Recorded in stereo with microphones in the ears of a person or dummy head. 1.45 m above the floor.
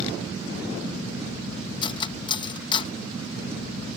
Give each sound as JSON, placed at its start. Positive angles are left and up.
{"t": 1.8, "sound": "cutlery clinking", "side_deg": 30}